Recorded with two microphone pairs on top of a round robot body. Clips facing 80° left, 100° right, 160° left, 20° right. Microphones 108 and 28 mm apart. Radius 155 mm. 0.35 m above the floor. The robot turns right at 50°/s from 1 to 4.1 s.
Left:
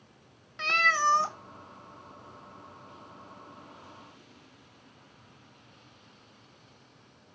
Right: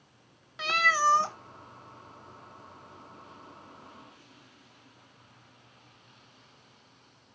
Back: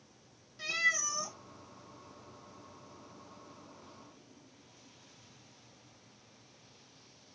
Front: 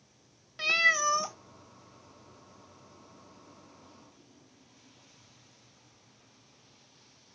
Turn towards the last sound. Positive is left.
turn(degrees=135)